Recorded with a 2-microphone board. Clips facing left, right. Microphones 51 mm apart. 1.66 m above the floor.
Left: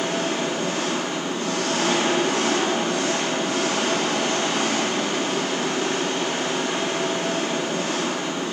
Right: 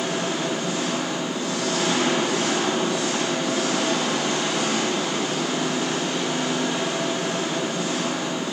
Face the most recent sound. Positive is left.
turn(degrees=50)  # may be behind; listen again after turning